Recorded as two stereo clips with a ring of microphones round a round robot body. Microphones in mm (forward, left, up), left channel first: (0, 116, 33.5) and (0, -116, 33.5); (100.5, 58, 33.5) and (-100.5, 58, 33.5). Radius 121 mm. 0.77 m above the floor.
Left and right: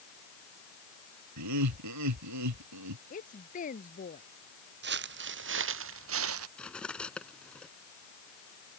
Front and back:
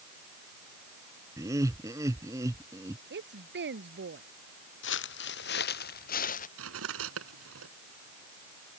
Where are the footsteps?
45° right; by 6.5 s 60° right.